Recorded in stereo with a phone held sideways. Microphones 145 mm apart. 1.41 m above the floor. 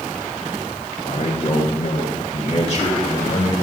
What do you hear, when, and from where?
1.0 s a man speaking: 50° left (ahead or behind), 1.4 m; by 3.5 s 45° left (ahead or behind), 3 m